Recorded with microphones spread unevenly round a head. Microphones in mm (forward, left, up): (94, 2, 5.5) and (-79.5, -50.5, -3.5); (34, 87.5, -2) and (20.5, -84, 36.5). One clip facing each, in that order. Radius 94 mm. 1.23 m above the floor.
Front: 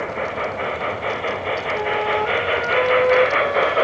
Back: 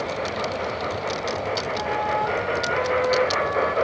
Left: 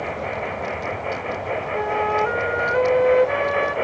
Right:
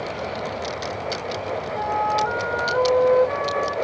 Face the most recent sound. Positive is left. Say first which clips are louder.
# front 6 dB, left 2 dB
turn(degrees=55)